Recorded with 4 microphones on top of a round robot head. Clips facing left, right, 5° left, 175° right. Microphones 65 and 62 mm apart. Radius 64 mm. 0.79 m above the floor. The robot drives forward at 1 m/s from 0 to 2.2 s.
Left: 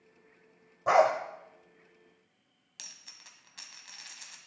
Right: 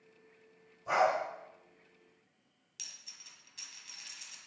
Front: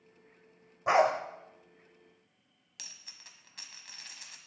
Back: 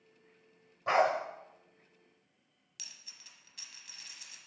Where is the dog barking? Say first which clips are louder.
Left 6 dB, front 3 dB; 80° left, 1.4 m; by 1.1 s 90° left, 1.4 m.